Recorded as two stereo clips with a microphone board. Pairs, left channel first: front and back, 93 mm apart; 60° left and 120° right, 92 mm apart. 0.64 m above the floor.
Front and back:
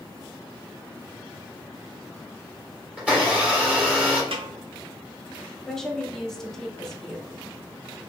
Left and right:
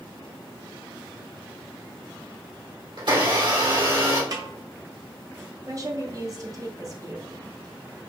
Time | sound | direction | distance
3.0 | a blender | 105° right | 1.9 m
4.3 | a snare drum | 165° right | 0.8 m
5.7 | a woman speaking | 85° right | 0.8 m